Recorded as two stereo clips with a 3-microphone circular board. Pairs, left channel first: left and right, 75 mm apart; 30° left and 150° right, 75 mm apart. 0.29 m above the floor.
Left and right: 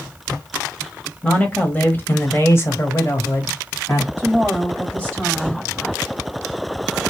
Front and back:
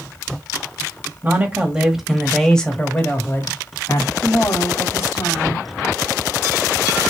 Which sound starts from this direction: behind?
A man speaking, at 1.2 s.